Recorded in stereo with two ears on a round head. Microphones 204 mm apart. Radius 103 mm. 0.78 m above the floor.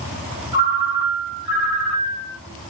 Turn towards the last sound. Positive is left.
turn(degrees=-10)  # may be behind; listen again after turning